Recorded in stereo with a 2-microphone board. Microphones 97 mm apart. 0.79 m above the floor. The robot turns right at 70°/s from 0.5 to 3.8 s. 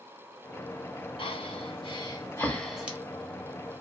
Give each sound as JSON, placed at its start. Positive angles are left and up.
{"t": 1.2, "sound": "breathing", "side_deg": 70, "distance_m": 0.8}